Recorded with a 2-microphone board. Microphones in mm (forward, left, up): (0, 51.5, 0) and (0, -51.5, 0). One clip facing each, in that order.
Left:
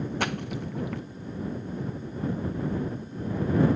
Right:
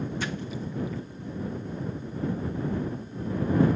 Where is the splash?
60° left (ahead or behind).